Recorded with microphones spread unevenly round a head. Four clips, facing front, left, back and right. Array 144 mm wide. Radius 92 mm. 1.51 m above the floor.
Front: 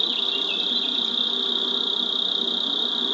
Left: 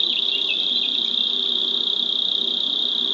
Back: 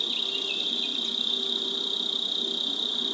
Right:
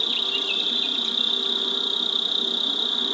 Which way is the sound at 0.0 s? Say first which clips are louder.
Right 1 dB, front 5 dB; 40° right.